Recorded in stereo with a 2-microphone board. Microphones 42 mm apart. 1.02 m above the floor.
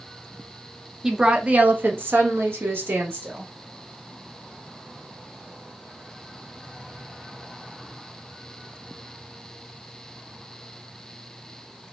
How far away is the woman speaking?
About 0.6 m.